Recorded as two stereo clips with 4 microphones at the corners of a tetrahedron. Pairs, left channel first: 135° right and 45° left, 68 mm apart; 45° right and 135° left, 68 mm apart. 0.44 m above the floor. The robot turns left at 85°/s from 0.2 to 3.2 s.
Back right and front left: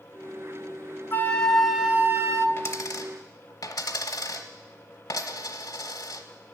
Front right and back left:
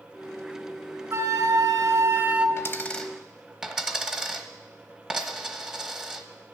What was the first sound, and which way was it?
A flute, 175° left.